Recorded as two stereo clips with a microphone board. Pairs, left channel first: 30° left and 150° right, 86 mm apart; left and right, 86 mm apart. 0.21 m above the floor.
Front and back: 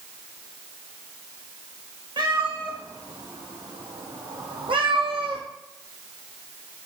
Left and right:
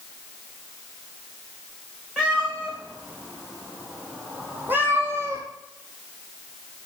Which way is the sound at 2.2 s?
170° right.